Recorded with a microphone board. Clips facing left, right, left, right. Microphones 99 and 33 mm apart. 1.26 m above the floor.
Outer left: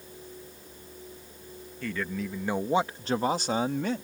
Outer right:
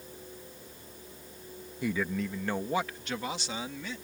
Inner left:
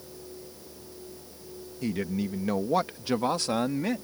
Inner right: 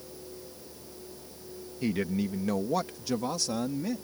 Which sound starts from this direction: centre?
A man speaking, at 1.8 s.